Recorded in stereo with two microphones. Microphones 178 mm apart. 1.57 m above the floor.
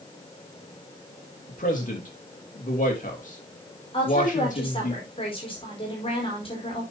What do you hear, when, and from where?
1.5 s a man speaking: 45° left (ahead or behind), 3 m
3.9 s a woman speaking: 30° left (ahead or behind), 4.5 m